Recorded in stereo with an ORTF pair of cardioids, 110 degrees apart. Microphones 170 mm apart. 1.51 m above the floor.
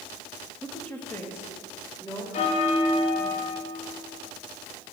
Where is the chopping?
I don't hear chopping.